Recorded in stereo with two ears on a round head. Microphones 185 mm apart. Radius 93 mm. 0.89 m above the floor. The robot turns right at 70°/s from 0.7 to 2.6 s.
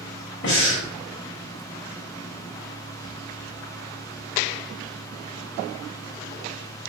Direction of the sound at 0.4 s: 60° left (ahead or behind).